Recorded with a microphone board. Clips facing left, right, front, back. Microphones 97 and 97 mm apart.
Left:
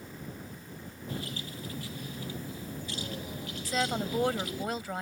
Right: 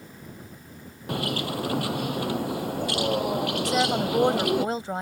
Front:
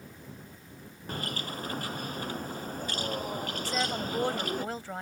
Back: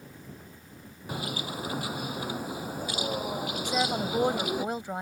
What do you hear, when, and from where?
1.1 s a bird: 100° right
3.6 s a woman speaking: 120° right